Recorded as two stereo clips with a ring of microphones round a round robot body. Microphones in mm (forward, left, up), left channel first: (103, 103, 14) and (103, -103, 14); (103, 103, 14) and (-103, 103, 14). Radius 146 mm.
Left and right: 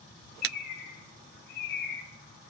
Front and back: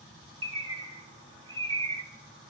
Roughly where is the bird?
Behind left.